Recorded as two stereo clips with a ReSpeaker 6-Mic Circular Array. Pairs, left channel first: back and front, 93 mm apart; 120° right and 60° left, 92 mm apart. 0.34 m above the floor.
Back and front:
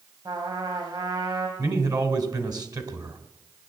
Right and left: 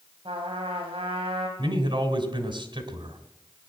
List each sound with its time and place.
0.2 s a trumpet: 40° left, 3.5 m
1.6 s a man speaking: 40° left, 2.5 m